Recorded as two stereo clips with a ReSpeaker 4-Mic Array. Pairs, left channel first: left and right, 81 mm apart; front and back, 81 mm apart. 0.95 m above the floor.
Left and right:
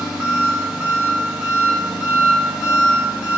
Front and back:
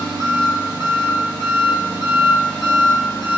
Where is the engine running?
165° right, 0.9 m.